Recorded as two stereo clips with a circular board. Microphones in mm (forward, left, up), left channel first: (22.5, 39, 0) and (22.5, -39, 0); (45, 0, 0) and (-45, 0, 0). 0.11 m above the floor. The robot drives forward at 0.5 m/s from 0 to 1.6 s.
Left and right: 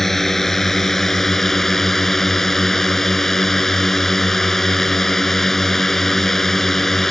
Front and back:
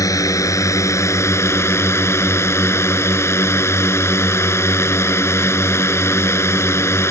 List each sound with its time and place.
0.0 s a drone: 5° left; by 7.1 s 10° left